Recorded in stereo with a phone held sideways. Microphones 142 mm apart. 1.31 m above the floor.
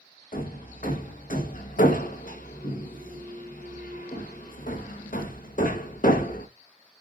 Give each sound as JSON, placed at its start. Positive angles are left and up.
{"t": 0.3, "sound": "hammering", "side_deg": 75, "distance_m": 1.0}